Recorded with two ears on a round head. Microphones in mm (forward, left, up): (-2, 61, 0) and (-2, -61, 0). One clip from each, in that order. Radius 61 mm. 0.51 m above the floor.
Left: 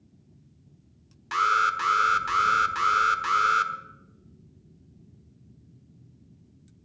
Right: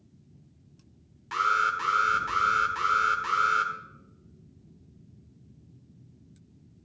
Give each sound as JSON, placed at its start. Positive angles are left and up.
{"t": 1.3, "sound": "an alarm", "side_deg": 25, "distance_m": 1.1}